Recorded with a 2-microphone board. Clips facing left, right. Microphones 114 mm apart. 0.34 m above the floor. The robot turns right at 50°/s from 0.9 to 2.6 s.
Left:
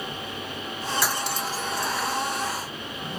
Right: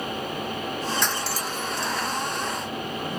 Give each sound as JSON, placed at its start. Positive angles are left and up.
{"t": 1.0, "sound": "cutlery clinking", "side_deg": 5}